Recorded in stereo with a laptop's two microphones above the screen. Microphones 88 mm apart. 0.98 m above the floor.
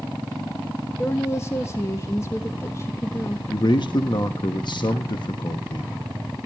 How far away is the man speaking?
About 1.1 m.